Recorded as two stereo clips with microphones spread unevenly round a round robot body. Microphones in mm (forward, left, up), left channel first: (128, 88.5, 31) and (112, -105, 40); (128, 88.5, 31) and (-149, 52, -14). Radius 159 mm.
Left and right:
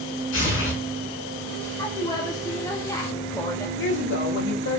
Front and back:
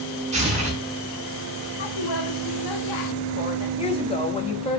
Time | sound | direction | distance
0.3 | tearing paper | 120° left | 6 m
1.8 | a woman speaking | 10° left | 1.8 m
3.8 | a woman speaking | 80° left | 1.9 m